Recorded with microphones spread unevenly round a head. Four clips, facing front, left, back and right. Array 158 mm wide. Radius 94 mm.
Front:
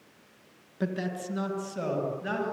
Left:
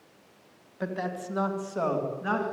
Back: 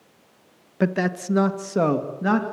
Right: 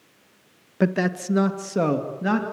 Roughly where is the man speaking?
Right.